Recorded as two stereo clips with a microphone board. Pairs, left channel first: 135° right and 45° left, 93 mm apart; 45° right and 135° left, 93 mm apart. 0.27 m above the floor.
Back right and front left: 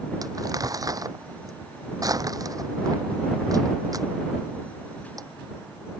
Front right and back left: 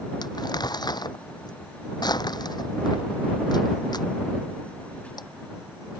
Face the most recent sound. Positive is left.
turn(degrees=-5)